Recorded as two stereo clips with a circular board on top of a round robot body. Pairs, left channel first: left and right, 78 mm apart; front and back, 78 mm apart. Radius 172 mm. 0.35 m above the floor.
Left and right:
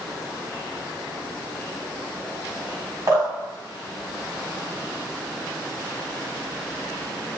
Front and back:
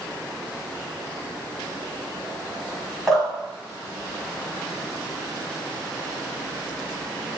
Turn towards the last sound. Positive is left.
turn(degrees=-85)